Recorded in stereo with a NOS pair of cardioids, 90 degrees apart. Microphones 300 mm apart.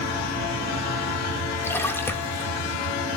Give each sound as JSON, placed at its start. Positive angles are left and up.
{"t": 1.6, "sound": "a splash", "azimuth_deg": 10, "distance_m": 1.4}